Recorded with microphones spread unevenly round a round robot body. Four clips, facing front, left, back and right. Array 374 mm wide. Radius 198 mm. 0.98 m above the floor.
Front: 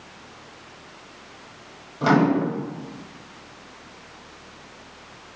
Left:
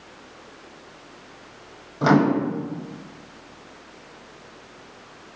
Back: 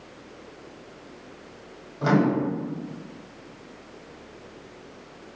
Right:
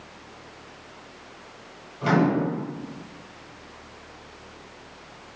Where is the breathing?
No breathing in this recording.